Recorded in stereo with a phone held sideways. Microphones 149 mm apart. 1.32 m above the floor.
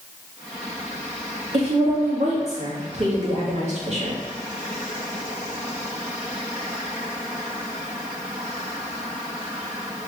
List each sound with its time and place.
1.5 s a woman speaking: 55° right (ahead or behind), 2.5 m